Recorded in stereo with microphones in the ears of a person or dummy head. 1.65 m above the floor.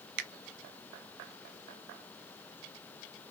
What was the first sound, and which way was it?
A finger snap, 60° right (ahead or behind).